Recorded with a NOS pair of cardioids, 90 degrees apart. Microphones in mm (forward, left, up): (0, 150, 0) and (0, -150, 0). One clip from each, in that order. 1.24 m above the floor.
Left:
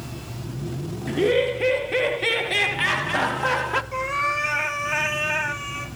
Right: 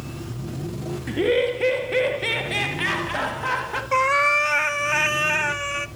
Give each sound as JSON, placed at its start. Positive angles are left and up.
{"t": 1.1, "sound": "laughter", "azimuth_deg": -10, "distance_m": 2.0}
{"t": 3.9, "sound": "a cat meowing", "azimuth_deg": -55, "distance_m": 1.3}